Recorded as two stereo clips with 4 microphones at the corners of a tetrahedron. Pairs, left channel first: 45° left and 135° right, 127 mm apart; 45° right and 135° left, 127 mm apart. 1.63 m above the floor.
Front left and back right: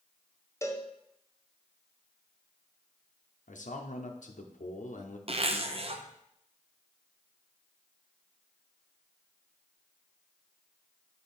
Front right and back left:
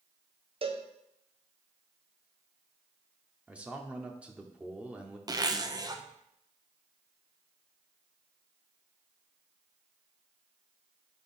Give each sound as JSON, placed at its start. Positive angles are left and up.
{"t": 0.6, "sound": "a cowbell", "azimuth_deg": 105, "distance_m": 0.7}
{"t": 3.5, "sound": "a man speaking", "azimuth_deg": 55, "distance_m": 0.7}
{"t": 5.3, "sound": "a zipper", "azimuth_deg": -165, "distance_m": 0.5}